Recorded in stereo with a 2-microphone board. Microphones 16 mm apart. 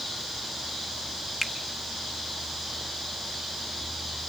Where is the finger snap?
5° left (ahead or behind), 1.6 m.